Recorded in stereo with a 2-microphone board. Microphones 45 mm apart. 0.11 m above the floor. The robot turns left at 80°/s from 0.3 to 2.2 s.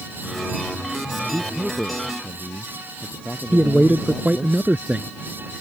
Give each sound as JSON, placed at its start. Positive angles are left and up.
{"t": 1.2, "sound": "a man speaking", "azimuth_deg": -130}
{"t": 3.5, "sound": "a man speaking", "side_deg": -30}